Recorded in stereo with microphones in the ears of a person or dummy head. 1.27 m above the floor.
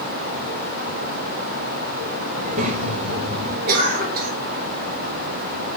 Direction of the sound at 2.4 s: 45° right (ahead or behind).